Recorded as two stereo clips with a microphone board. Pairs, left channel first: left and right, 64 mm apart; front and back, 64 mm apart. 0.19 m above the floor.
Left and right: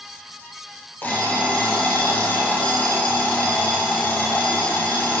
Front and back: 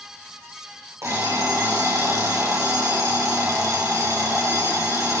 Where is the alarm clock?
150° left, 3 m.